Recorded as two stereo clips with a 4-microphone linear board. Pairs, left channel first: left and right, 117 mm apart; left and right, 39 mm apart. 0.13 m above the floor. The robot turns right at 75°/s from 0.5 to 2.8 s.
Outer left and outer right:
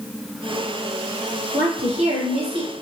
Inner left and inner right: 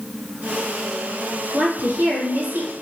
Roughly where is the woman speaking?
Behind right.